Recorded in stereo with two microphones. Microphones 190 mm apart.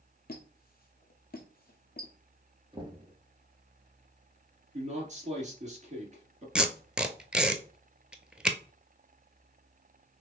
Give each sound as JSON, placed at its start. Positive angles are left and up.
{"t": 0.3, "sound": "a squeak", "side_deg": 50, "distance_m": 0.9}
{"t": 2.7, "sound": "knocking", "side_deg": -25, "distance_m": 1.3}
{"t": 4.7, "sound": "a man speaking", "side_deg": -40, "distance_m": 2.0}
{"t": 6.5, "sound": "tape being pulled", "side_deg": -5, "distance_m": 0.6}